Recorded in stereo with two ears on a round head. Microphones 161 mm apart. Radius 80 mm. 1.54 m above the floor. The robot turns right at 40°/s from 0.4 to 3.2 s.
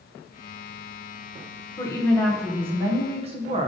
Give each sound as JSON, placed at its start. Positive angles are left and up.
{"t": 1.8, "sound": "a woman speaking", "azimuth_deg": 160, "distance_m": 1.1}